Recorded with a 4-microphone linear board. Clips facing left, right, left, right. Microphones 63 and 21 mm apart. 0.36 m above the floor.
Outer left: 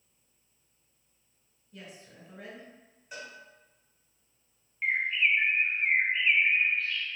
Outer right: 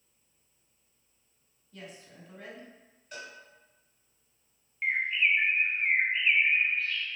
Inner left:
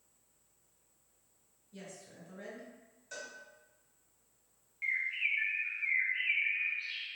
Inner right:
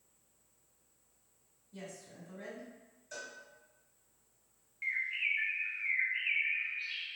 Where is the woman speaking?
10° left (ahead or behind), 1.9 m.